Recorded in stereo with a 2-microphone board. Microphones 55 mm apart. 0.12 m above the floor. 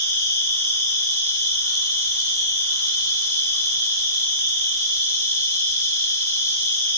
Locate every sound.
0.0 s an insect: 80° left, 4 m